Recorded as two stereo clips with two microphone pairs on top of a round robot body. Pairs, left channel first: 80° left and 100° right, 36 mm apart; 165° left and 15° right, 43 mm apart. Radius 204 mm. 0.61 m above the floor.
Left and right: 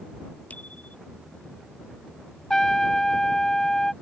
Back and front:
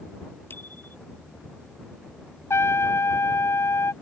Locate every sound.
0.5 s a bicycle bell: 125° left
2.5 s a trumpet: 155° left